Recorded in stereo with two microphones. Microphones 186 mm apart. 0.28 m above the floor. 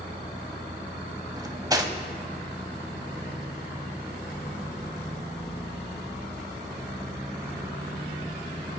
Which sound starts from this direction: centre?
Cutlery clinking, at 1.4 s.